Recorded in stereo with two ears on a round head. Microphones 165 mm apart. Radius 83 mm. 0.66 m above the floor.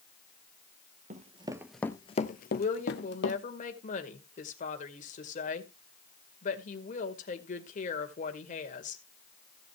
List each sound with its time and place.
1.1 s running footsteps: 40° right (ahead or behind), 1.0 m; by 3.4 s 70° left (ahead or behind), 1.7 m
2.6 s a woman speaking: 45° left (ahead or behind), 2 m